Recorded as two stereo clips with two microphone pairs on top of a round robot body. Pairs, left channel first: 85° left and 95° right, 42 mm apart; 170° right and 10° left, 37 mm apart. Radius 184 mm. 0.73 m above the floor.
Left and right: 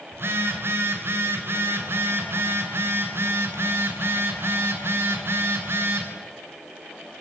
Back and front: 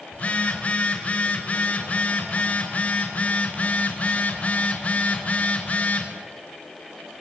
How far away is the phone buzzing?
About 3.5 m.